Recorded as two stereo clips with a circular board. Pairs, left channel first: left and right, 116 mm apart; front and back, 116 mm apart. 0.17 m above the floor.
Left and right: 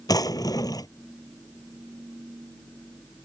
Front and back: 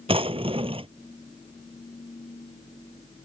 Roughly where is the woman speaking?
No woman speaking in this recording.